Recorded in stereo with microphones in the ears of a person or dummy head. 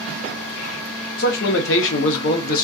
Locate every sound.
1.2 s a man speaking: 50° left (ahead or behind), 0.7 m; by 2.6 s 45° left (ahead or behind), 0.6 m